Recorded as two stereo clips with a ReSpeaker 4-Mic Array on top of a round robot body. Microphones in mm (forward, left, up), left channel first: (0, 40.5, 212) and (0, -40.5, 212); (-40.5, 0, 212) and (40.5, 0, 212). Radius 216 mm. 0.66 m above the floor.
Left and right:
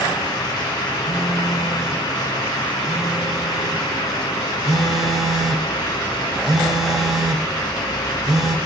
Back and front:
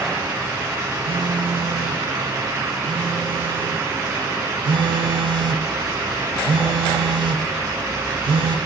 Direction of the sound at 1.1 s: 5° right.